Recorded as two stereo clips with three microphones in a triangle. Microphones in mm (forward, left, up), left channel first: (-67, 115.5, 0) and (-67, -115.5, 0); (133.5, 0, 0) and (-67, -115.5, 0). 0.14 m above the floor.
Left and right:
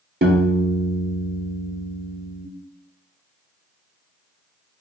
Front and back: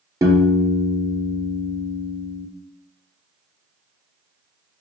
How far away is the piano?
About 0.6 m.